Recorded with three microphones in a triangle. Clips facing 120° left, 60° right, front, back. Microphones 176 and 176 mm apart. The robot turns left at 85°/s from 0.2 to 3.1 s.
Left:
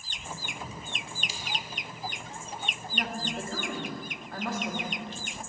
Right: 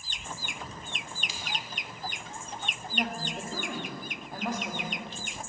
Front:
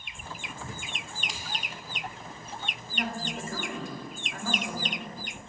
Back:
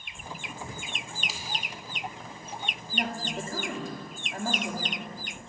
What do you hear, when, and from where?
1.3 s scissors: 100° left, 0.9 m; by 1.4 s 85° left, 0.9 m
2.9 s a woman speaking: 120° right, 1.1 m; by 5.2 s 135° right, 1.1 m